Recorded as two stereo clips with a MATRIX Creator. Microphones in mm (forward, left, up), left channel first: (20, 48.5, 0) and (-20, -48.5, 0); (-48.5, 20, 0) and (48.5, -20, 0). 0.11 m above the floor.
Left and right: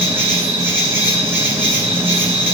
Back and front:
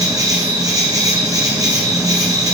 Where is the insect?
50° right, 2.5 m.